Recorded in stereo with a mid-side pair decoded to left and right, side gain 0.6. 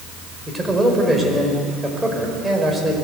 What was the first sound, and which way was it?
A man speaking, 10° right.